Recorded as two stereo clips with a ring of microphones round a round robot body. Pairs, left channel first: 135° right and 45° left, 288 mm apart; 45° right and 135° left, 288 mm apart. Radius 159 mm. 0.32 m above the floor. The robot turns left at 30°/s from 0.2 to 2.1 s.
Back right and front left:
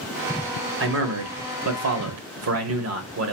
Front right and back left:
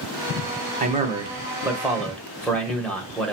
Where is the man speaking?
80° left, 1.3 m; by 3.3 s 40° left, 1.3 m.